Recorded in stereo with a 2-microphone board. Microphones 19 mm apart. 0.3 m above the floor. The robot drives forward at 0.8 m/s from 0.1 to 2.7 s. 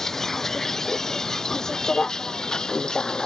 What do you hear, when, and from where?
0.0 s a vehicle: 25° left (ahead or behind); by 3.3 s 45° left (ahead or behind)